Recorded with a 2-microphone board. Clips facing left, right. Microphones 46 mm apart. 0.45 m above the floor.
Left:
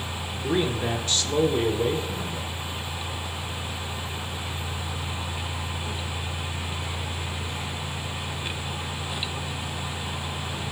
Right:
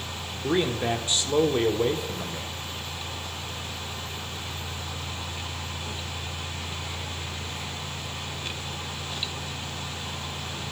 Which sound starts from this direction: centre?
A man speaking, at 0.4 s.